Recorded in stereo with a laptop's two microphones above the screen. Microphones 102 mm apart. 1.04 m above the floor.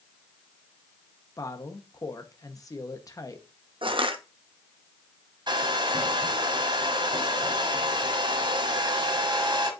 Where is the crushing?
55° right (ahead or behind), 1.0 m.